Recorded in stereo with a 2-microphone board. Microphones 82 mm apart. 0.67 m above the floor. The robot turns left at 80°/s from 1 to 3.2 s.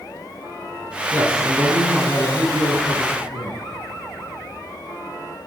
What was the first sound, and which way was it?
A man speaking, 105° right.